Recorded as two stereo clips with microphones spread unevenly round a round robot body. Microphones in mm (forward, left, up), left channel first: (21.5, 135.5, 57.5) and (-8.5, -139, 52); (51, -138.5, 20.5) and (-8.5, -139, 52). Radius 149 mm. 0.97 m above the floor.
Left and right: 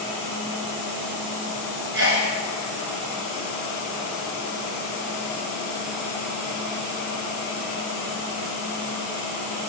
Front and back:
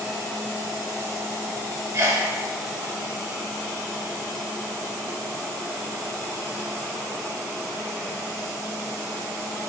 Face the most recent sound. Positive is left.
turn(degrees=-150)